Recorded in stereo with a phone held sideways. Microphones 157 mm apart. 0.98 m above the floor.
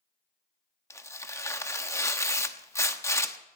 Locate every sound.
0.9 s tearing paper: 20° left (ahead or behind), 0.9 m